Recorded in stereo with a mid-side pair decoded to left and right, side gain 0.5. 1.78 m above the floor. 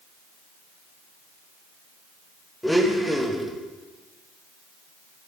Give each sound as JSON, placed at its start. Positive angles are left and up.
{"t": 2.6, "sound": "a blender", "azimuth_deg": 5, "distance_m": 2.5}